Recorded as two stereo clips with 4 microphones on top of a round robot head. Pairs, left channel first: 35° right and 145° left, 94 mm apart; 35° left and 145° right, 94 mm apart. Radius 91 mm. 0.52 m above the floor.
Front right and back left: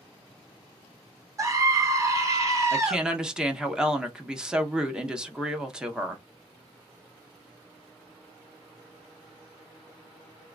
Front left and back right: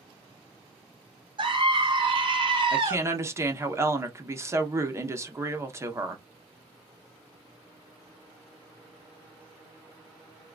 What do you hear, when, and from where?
1.4 s a scream: 165° right, 2 m
2.7 s a woman speaking: 145° right, 1.4 m